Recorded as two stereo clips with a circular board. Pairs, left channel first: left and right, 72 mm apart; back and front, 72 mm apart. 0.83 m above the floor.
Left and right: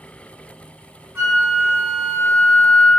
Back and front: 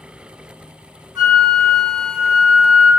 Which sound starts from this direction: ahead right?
A flute, at 1.1 s.